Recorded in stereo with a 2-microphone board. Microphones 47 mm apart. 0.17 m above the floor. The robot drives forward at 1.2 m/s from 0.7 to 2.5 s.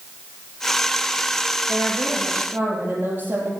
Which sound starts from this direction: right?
A woman speaking, at 1.7 s.